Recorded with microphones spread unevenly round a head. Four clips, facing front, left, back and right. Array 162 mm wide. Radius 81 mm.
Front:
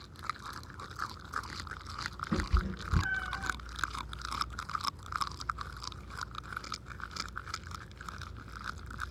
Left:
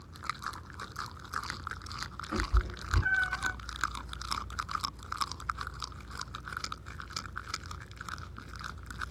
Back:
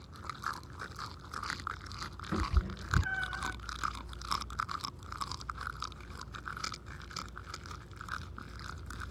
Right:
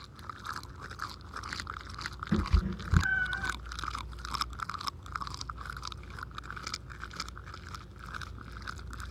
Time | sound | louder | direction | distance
2.3 | a cat meowing | right 4 dB, front 1 dB | 55° right | 1.6 m